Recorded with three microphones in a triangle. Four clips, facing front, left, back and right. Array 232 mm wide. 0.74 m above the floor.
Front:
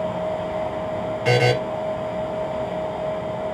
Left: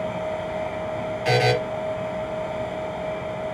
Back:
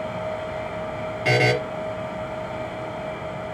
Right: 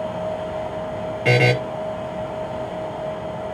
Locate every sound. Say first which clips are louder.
1.2 s a buzzer: right 2 dB, front 2 dB; 95° right, 3.5 m